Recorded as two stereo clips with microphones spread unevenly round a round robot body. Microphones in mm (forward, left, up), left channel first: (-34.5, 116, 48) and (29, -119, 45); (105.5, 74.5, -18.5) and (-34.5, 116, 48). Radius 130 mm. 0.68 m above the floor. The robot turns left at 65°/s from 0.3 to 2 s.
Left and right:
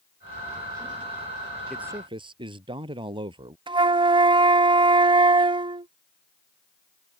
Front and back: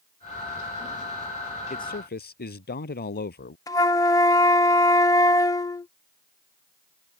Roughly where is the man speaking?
Ahead.